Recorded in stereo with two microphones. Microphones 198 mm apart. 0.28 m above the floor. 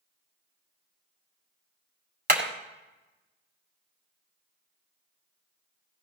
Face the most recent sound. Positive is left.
turn(degrees=-45)  # may be behind; listen again after turning